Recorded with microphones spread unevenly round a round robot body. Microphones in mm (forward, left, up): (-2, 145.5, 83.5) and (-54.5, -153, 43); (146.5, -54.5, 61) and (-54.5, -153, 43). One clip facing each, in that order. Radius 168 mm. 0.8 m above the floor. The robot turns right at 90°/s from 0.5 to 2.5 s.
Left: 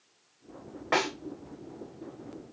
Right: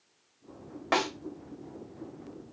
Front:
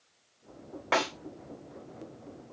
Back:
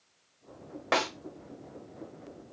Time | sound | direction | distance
0.9 | a snare drum | 115° right | 1.5 m